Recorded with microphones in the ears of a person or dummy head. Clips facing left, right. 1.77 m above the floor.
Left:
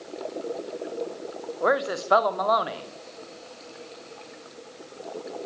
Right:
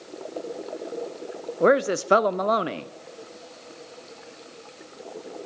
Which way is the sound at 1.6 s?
45° right (ahead or behind).